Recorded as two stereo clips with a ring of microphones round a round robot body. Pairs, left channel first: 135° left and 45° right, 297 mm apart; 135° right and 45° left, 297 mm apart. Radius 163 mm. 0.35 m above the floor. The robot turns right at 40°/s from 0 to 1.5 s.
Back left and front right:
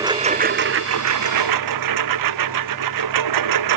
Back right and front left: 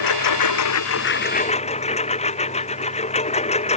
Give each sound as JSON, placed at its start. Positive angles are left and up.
{"t": 0.0, "sound": "a lawn mower", "azimuth_deg": -125}